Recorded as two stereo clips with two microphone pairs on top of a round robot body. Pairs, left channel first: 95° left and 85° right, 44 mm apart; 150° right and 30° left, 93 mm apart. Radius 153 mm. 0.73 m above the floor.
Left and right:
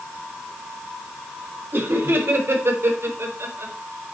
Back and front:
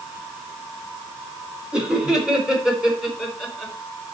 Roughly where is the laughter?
Ahead right.